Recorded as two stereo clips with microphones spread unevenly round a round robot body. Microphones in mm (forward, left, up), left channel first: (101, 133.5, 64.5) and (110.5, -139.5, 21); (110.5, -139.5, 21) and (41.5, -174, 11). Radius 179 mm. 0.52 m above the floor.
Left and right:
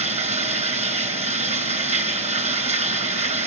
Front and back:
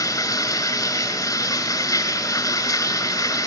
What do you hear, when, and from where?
0.0 s running water: 20° right, 1.8 m